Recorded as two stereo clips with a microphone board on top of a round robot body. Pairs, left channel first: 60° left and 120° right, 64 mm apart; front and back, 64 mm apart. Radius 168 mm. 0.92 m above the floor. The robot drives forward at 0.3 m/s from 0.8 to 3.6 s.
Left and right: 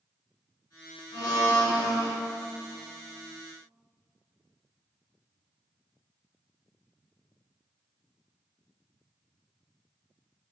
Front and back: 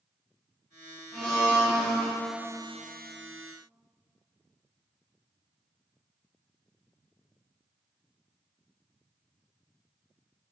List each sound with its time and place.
1.1 s a blender: 80° left, 0.7 m; by 2.1 s 105° left, 0.8 m